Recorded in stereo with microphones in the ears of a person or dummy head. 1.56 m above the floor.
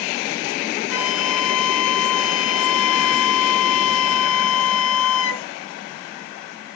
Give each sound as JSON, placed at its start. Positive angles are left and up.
{"t": 0.9, "sound": "a flute", "side_deg": 60, "distance_m": 0.5}